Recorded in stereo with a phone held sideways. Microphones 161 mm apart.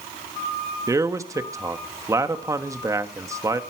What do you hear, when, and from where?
0.9 s a man speaking: 20° right (ahead or behind), 1.2 m